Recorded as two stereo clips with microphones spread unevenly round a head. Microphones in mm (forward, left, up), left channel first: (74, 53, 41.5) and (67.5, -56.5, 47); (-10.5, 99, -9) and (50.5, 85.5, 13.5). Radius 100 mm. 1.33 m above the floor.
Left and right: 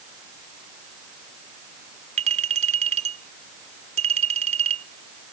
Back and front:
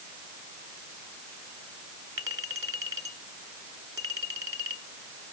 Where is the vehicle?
No vehicle in this recording.